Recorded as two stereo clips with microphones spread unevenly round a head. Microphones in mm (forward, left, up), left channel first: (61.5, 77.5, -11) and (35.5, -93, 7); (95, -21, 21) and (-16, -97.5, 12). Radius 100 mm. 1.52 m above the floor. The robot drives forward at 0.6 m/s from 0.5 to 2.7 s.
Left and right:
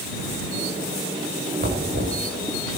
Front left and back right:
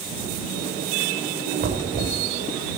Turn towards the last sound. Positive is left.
turn(degrees=-160)